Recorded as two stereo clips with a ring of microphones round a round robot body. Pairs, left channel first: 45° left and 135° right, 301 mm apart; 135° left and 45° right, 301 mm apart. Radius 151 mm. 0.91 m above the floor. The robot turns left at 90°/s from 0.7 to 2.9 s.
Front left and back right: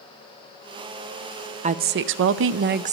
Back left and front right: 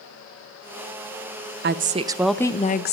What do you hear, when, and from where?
1.6 s a woman speaking: 75° right, 0.6 m; by 2.9 s 170° left, 0.6 m